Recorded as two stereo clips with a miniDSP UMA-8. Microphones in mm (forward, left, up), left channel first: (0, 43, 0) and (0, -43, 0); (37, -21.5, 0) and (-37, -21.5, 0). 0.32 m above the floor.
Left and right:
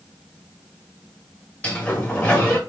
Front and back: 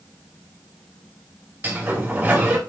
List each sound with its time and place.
1.6 s a sliding door: 150° left, 1.4 m